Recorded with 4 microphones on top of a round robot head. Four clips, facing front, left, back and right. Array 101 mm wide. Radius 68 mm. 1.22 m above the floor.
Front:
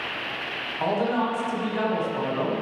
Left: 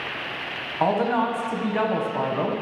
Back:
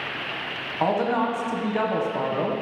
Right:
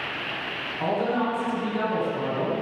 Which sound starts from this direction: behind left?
A man speaking, at 0.8 s.